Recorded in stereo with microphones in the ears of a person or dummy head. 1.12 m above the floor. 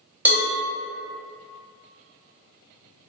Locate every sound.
0.2 s a cowbell: 5° right (ahead or behind), 0.9 m